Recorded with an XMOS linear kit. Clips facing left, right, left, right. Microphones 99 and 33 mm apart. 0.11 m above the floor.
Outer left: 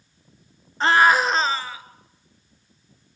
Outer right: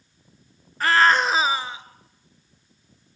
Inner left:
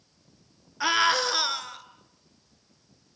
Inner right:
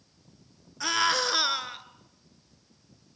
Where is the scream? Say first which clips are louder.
Outer left 1 dB, inner left 3 dB; 25° left (ahead or behind), 1.6 m; by 1.8 s 25° right (ahead or behind), 1.8 m.